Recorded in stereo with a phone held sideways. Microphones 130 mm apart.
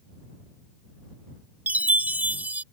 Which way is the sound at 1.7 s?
10° right (ahead or behind).